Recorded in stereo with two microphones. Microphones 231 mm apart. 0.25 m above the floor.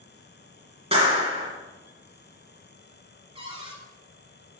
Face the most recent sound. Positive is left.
turn(degrees=-25)  # may be behind; listen again after turning